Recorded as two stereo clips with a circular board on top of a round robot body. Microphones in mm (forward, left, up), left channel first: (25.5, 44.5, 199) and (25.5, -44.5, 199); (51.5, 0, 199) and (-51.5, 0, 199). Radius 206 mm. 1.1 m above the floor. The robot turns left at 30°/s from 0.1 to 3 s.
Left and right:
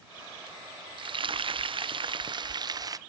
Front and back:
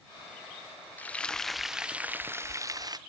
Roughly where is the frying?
Right.